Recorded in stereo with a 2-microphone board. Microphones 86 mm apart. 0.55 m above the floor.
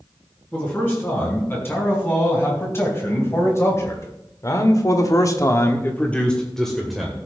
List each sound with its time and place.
0.5 s a man speaking: 25° left (ahead or behind), 6.5 m; by 7.2 s centre (ahead or behind), 2.5 m